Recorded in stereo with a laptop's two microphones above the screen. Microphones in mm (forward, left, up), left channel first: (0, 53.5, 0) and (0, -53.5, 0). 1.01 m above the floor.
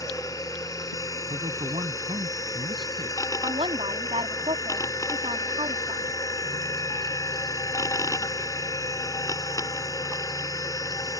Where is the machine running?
35° left (ahead or behind).